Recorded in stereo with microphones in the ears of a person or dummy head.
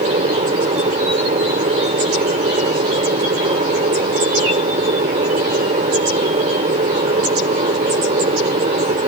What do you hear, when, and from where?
0.0 s an aircraft: 30° right (ahead or behind)